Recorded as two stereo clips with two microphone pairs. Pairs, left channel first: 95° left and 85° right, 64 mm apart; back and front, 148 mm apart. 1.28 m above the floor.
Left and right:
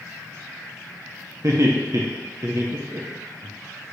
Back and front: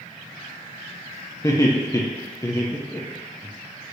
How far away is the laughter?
About 0.9 m.